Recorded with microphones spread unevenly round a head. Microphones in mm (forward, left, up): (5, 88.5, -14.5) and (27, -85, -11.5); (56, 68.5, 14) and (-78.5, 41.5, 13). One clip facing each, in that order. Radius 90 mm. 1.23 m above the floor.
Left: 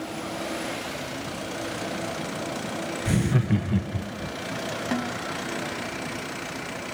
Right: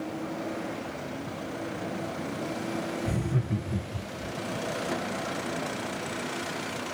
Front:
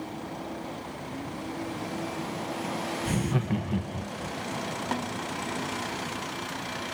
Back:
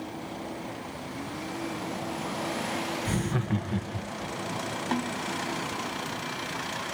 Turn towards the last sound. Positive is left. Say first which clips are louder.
# left 4 dB, back 4 dB
turn(degrees=100)